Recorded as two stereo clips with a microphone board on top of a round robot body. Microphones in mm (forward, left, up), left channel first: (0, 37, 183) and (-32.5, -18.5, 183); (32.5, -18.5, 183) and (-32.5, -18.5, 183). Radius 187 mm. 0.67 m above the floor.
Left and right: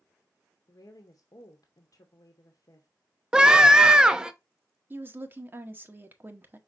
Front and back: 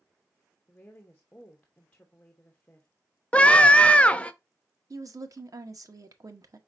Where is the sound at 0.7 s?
70° left, 1.1 m.